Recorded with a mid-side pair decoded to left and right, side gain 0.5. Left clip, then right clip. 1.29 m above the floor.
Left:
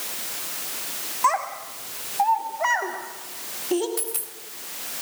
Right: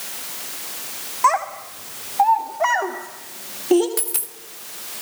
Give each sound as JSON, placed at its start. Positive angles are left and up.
{"t": 1.2, "sound": "a child speaking", "azimuth_deg": -35, "distance_m": 2.5}
{"t": 4.0, "sound": "a dropped coin", "azimuth_deg": -55, "distance_m": 2.5}